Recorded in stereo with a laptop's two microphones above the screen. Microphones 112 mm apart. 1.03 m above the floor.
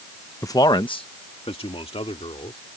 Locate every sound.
0.4 s a man speaking: 25° left (ahead or behind); by 2.6 s 60° left (ahead or behind)